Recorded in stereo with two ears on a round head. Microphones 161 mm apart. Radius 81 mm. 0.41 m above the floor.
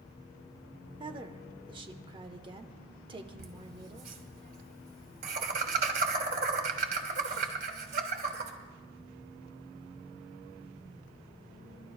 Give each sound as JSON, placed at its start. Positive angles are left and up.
{"t": 1.0, "sound": "a woman speaking", "side_deg": -30, "distance_m": 0.8}
{"t": 3.4, "sound": "laughter", "side_deg": -55, "distance_m": 2.5}